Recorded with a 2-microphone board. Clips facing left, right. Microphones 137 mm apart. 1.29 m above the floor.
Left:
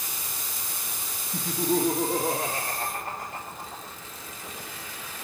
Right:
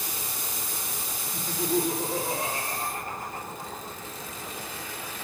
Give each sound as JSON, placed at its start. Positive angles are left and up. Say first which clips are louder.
{"t": 1.3, "sound": "laughter", "louder": "left 2 dB", "side_deg": 35, "distance_m": 1.8}